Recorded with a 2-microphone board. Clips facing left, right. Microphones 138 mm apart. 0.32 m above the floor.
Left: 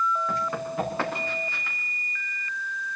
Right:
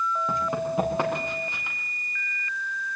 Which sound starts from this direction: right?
Running footsteps, at 0.3 s.